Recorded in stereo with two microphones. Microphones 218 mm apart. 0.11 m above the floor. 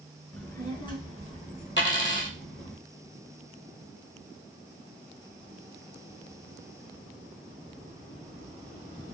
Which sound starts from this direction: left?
A dropped coin, at 1.8 s.